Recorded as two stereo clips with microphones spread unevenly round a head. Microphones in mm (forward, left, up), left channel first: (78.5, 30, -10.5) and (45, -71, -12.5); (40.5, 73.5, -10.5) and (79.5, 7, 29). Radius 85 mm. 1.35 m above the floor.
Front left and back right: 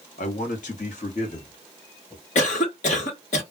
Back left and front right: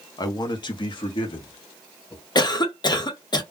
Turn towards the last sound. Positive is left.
turn(degrees=85)